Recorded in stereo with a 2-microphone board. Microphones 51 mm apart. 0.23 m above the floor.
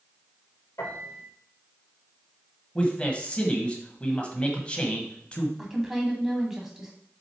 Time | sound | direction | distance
0.8 | a piano | 70° left (ahead or behind) | 2.5 m
2.8 | a man speaking | 25° left (ahead or behind) | 1.3 m
5.6 | a woman speaking | 10° right (ahead or behind) | 1.8 m